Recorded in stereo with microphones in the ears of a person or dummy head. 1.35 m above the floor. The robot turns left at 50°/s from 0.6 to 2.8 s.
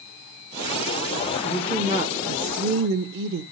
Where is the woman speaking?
Straight ahead, 0.7 m; by 3.4 s 65° right, 0.7 m.